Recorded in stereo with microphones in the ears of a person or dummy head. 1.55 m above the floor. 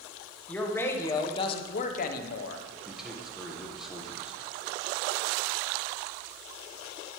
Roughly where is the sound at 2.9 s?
Centre.